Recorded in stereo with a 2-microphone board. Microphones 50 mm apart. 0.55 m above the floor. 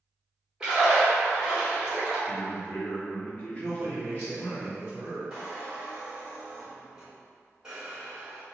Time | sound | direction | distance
0.6 | a splash | 10° right (ahead or behind) | 1.5 m
2.3 | a man speaking | 30° left (ahead or behind) | 0.7 m
3.6 | a man speaking | 40° right (ahead or behind) | 1.0 m
5.3 | a squeak | 15° right (ahead or behind) | 1.5 m